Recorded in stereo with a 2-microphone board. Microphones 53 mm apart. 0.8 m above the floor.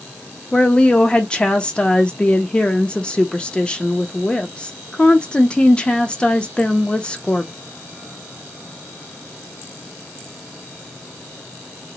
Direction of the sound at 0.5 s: 20° left (ahead or behind).